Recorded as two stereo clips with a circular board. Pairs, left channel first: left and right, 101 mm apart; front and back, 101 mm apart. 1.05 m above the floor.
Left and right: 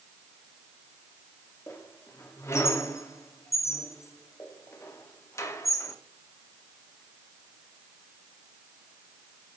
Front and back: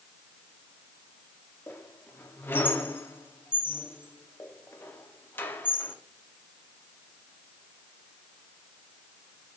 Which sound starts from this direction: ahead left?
A squeak, at 1.7 s.